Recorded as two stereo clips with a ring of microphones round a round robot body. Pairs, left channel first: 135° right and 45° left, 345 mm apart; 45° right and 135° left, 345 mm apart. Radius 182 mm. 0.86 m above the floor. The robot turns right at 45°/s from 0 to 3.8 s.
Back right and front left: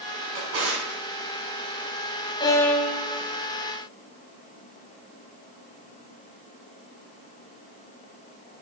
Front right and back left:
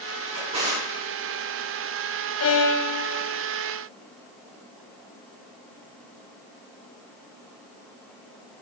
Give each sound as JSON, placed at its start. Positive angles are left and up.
{"t": 0.3, "sound": "a drawer", "azimuth_deg": 50, "distance_m": 5.5}
{"t": 2.4, "sound": "a violin", "azimuth_deg": -65, "distance_m": 1.0}